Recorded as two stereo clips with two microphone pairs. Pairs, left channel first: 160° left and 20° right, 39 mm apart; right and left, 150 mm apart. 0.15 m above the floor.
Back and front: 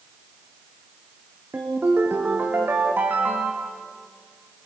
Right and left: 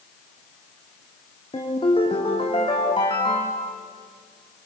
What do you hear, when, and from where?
1.5 s a ringtone: 40° right, 4.5 m